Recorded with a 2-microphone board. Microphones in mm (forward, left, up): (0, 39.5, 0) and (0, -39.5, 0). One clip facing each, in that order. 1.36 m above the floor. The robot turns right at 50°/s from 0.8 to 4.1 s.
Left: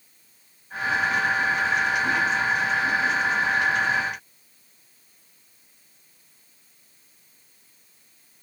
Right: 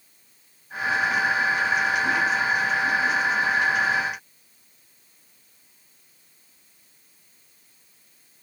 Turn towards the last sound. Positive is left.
No sound to turn to.